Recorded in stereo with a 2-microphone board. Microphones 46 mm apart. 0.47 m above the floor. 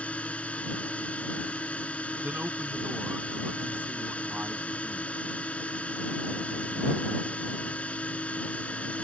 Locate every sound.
0.0 s a drone: 30° left (ahead or behind)
2.2 s a man speaking: 40° right (ahead or behind)